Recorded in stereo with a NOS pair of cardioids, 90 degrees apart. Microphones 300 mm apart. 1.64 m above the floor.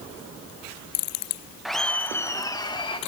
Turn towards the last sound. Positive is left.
turn(degrees=15)